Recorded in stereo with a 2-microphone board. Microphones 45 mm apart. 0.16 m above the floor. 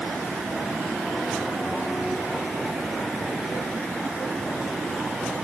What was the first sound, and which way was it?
Only background noise.